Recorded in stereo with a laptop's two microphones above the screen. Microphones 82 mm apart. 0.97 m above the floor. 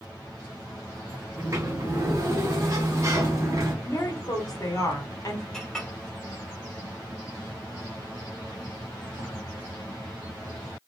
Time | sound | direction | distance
1.4 | a sliding door | 40° right (ahead or behind) | 1.2 m
3.9 | a woman speaking | 45° left (ahead or behind) | 0.9 m
5.5 | a clink | 5° left (ahead or behind) | 0.8 m